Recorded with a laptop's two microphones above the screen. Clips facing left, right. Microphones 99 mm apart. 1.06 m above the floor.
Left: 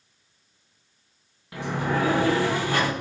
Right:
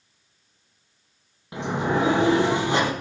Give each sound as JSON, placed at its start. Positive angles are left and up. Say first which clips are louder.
{"t": 1.5, "sound": "a sliding door", "louder": "right 2 dB", "side_deg": -20, "distance_m": 1.3}